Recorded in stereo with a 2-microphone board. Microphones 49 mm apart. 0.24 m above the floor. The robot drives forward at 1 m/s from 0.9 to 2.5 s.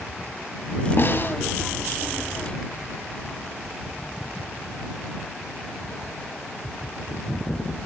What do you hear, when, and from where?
1.0 s a snare drum: 50° left (ahead or behind), 1.3 m; by 1.3 s 45° left (ahead or behind), 1.4 m